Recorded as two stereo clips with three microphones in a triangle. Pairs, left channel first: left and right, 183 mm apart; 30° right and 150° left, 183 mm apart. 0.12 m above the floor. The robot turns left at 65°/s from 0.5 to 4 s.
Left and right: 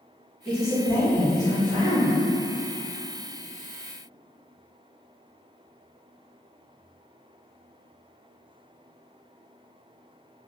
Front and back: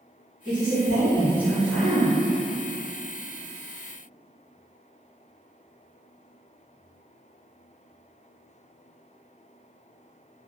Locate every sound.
0.5 s a man speaking: 5° left, 1.9 m; by 2.1 s 100° right, 1.9 m